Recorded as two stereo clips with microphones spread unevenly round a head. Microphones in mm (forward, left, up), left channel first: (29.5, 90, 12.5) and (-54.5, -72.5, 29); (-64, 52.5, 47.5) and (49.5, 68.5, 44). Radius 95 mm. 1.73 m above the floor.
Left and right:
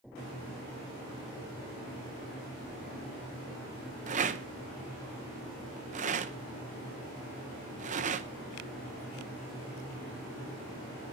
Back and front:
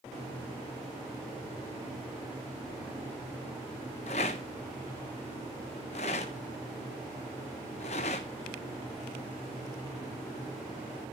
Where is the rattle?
145° right, 1.0 m.